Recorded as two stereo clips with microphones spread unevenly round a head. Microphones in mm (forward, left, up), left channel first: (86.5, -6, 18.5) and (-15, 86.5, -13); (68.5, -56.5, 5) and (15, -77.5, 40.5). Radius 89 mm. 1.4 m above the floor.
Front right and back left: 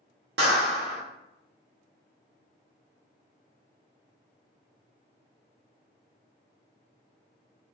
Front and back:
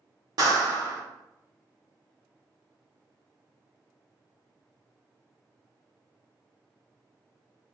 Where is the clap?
Straight behind, 0.7 m.